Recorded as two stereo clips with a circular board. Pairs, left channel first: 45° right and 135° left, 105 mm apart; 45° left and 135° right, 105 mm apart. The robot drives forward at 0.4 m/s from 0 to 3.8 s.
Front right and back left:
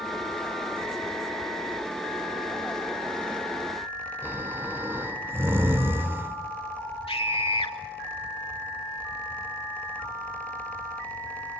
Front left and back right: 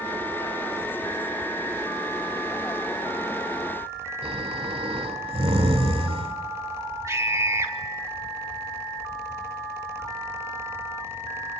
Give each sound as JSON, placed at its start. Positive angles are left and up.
{"t": 4.2, "sound": "snoring", "azimuth_deg": -155, "distance_m": 2.5}
{"t": 7.1, "sound": "a scream", "azimuth_deg": -70, "distance_m": 3.0}